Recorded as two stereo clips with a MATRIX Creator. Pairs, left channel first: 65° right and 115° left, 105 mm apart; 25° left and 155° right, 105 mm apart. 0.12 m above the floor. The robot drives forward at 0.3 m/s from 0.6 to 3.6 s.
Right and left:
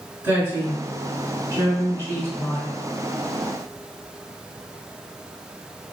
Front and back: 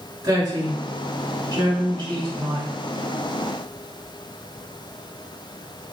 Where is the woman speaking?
165° left, 1.6 m; by 2.7 s 170° left, 2.0 m.